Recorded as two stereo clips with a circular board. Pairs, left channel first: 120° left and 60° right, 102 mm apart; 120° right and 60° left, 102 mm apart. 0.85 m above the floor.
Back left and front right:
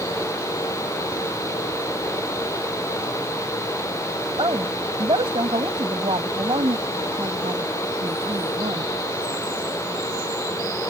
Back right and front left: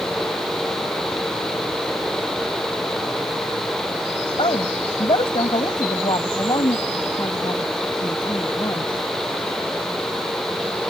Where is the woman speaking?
95° right; by 8.9 s 70° right.